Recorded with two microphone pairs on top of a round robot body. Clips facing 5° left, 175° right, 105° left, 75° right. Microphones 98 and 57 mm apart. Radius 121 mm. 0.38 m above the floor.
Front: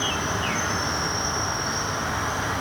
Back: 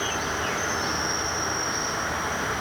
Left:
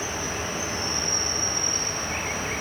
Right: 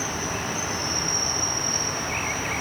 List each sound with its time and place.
0.0 s an insect: 65° right, 0.7 m